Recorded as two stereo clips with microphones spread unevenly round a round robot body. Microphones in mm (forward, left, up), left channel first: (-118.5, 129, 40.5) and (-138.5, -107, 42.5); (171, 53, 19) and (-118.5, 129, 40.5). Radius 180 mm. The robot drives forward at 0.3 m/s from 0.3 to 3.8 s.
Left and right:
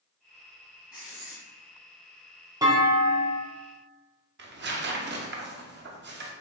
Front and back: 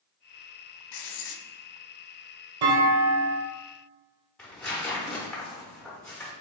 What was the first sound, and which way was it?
Writing, 10° right.